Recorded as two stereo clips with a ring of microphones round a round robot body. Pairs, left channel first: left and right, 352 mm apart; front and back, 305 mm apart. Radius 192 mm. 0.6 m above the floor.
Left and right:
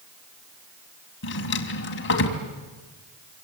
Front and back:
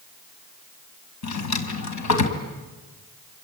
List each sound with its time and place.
1.2 s a drawer: 30° left, 2.5 m